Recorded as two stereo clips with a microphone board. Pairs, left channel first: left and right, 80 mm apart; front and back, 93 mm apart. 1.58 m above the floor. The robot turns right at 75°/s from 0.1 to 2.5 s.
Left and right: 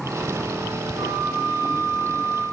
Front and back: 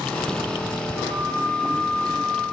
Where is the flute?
70° right, 5 m; by 2.4 s 45° left, 5 m.